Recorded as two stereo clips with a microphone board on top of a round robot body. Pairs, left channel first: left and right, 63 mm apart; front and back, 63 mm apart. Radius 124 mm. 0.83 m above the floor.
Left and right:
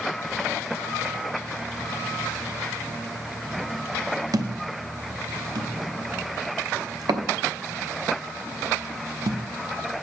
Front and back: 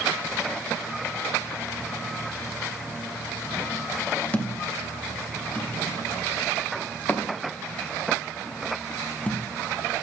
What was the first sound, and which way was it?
A thud, 70° right.